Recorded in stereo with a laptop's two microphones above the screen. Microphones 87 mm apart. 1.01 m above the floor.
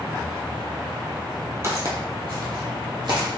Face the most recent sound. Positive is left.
turn(degrees=-60)  # may be behind; listen again after turning